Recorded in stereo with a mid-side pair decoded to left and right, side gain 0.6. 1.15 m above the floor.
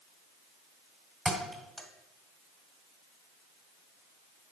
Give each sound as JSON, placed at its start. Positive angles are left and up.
{"t": 1.2, "sound": "a thud", "azimuth_deg": 5, "distance_m": 1.8}